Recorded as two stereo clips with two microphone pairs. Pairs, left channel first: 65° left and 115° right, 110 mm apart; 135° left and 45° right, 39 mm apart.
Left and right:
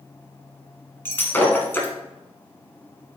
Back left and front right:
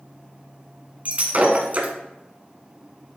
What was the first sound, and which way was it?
Breaking glass, 5° right.